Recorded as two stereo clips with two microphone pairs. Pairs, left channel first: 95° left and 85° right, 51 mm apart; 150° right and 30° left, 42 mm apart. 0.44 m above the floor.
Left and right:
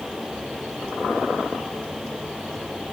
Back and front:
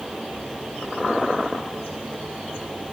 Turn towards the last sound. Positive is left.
No sound to turn to.